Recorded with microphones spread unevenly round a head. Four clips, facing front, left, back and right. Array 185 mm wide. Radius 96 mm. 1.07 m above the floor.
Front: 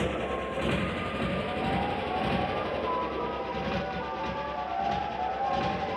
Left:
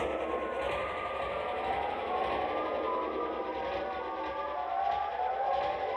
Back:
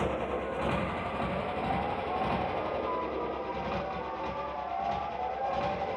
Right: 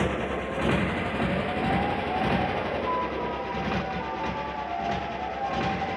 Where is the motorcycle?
85° right; by 6.0 s 70° right.